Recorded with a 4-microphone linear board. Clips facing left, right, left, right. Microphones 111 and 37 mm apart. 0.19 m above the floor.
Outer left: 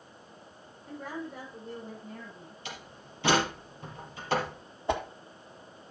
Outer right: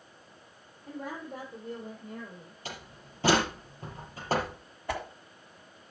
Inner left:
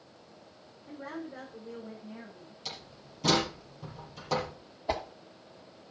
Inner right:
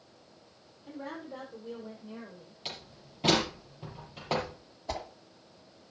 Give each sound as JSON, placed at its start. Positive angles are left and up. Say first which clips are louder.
{"t": 0.9, "sound": "a woman speaking", "louder": "even, even", "side_deg": -80, "distance_m": 6.5}
{"t": 2.6, "sound": "a door slam", "louder": "outer right 1 dB, inner right 1 dB", "side_deg": -40, "distance_m": 4.5}
{"t": 4.9, "sound": "a whoosh", "louder": "outer left 4 dB, inner left 5 dB", "side_deg": 20, "distance_m": 1.4}